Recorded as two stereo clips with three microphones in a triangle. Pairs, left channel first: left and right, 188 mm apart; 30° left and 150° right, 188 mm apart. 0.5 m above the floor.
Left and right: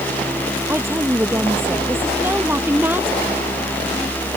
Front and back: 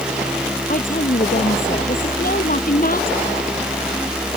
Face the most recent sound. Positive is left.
turn(degrees=-10)